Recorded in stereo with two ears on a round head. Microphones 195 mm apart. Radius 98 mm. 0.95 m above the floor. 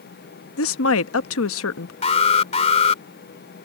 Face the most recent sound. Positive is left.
turn(degrees=30)  # may be behind; listen again after turning